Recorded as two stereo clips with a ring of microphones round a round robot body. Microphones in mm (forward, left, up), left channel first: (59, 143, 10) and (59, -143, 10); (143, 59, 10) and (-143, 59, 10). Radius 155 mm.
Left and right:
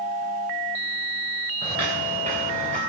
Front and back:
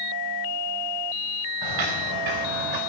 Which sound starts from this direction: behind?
Footsteps, at 1.6 s.